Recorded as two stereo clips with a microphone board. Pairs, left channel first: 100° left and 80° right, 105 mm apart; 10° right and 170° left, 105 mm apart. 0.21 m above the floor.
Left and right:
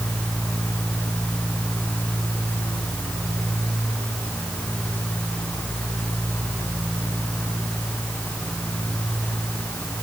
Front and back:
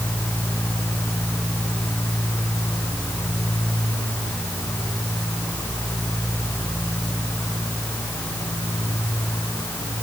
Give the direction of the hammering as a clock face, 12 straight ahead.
No hammering in this recording.